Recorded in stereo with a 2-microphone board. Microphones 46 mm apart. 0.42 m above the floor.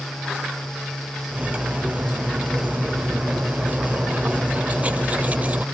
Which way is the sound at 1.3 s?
35° right (ahead or behind).